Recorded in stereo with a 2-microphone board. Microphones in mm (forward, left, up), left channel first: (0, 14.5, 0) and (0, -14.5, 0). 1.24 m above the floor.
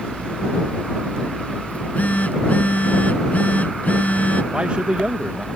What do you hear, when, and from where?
1.7 s a phone buzzing: 60° left (ahead or behind)
4.5 s a man speaking: 50° right (ahead or behind)